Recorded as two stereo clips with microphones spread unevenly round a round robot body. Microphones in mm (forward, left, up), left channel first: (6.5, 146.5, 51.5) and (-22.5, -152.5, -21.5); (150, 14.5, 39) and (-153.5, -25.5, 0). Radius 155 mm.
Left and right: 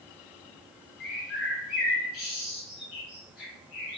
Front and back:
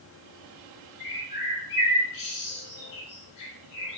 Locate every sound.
1.0 s a bird: 35° left, 2 m